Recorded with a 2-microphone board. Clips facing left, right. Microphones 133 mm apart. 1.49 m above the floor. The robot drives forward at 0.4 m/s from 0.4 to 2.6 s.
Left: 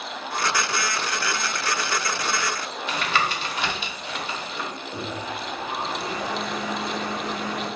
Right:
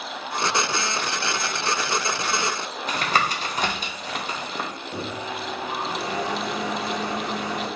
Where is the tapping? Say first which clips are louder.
Right 1 dB; 40° right (ahead or behind), 0.5 m.